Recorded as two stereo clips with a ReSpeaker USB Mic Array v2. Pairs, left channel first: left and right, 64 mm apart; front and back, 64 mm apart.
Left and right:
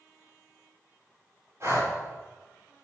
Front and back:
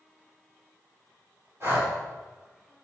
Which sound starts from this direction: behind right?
Breathing, at 1.6 s.